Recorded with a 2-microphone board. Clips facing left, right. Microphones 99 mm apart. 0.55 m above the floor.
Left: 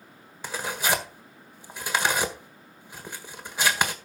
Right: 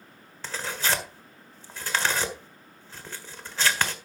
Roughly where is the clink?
No clink in this recording.